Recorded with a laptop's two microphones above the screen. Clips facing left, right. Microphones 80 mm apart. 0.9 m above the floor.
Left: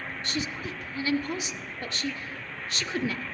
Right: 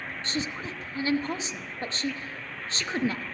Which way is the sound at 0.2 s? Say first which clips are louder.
Right 1 dB; 30° right (ahead or behind).